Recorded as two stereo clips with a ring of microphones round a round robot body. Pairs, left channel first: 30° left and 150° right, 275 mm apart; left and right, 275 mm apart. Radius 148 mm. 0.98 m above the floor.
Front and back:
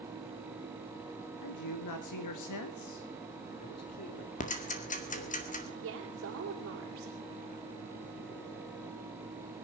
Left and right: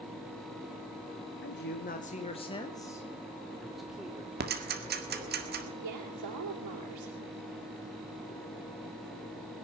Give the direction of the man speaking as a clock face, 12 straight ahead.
11 o'clock.